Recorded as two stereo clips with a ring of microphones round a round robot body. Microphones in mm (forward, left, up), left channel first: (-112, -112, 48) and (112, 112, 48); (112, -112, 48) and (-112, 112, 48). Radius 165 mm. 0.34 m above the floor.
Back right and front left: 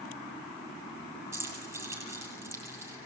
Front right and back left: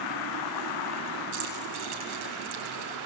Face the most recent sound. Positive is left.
turn(degrees=125)